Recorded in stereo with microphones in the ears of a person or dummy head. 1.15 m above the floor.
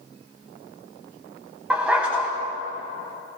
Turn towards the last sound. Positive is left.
turn(degrees=-5)  # may be behind; listen again after turning